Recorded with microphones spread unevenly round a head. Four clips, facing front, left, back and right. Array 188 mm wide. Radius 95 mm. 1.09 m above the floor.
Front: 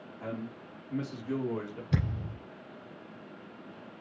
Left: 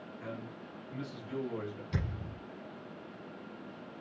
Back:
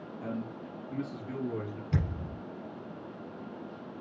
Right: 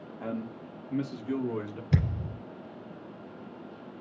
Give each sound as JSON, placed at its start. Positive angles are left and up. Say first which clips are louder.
{"t": 0.2, "sound": "a man speaking", "louder": "right 9 dB, back 1 dB", "azimuth_deg": -100, "distance_m": 2.5}
{"t": 1.9, "sound": "a thud", "louder": "right 8 dB, front 1 dB", "azimuth_deg": -75, "distance_m": 3.5}